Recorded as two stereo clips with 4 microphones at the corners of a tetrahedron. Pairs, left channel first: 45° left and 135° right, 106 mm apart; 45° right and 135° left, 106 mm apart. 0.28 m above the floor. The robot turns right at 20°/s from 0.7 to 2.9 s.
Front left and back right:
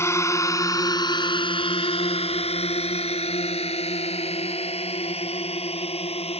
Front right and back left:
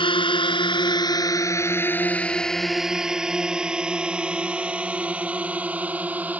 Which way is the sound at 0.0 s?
15° right.